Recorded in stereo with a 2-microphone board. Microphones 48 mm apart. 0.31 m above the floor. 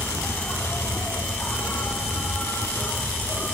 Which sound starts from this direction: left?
An insect, at 0.0 s.